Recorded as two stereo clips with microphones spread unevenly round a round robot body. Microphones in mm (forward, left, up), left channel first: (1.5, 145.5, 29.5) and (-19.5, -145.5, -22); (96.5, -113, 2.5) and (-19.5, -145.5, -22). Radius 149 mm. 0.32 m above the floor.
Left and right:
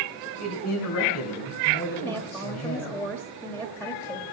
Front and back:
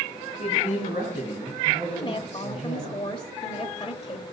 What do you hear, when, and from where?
0.4 s a man speaking: 125° left, 2.5 m
1.9 s a woman speaking: 10° right, 1.0 m